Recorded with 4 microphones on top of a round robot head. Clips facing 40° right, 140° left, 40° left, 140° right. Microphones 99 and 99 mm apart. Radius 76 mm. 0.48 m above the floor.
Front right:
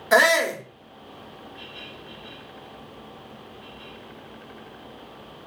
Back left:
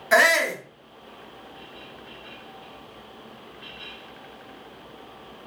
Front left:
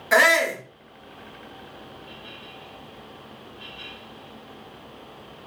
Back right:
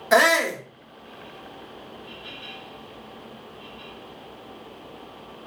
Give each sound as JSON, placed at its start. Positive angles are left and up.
{"t": 0.1, "sound": "a shout", "azimuth_deg": -95, "distance_m": 0.8}